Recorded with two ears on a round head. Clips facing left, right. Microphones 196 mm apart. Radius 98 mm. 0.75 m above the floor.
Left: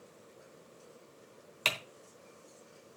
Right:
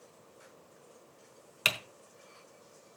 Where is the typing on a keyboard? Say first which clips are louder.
Even; 10° right (ahead or behind), 1.1 m.